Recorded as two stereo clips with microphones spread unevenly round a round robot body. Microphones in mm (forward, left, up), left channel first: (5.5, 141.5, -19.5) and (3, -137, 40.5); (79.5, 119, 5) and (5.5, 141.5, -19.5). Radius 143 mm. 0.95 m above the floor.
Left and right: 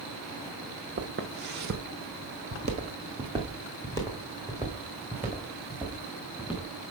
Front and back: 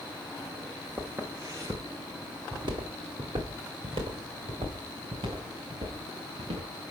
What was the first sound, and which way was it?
Footsteps, 105° right.